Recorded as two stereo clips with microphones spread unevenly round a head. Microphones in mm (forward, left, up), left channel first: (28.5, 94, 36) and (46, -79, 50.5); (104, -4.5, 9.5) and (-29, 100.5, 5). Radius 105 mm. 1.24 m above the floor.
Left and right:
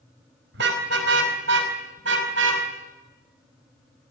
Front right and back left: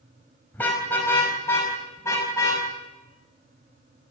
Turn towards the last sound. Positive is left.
turn(degrees=-115)